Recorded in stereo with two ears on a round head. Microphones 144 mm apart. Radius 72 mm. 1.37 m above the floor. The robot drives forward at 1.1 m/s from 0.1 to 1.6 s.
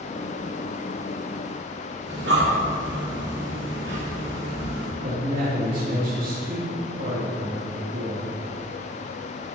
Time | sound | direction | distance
2.1 | breathing | 75° right (ahead or behind) | 3 m
5.0 | a man speaking | 55° right (ahead or behind) | 2.5 m